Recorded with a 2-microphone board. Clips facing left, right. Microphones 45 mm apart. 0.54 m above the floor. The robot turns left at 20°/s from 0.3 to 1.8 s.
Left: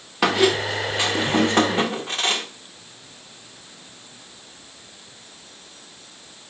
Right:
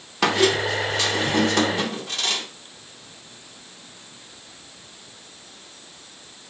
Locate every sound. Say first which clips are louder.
0.2 s a squeak: left 1 dB; 170° left, 0.9 m; by 2.5 s 140° left, 0.9 m